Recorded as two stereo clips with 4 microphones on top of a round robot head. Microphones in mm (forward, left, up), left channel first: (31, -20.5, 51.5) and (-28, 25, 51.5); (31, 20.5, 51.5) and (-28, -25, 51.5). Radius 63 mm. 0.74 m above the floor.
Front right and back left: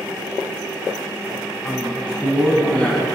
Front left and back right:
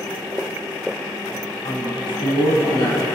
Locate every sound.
1.6 s a woman speaking: 40° left, 7.5 m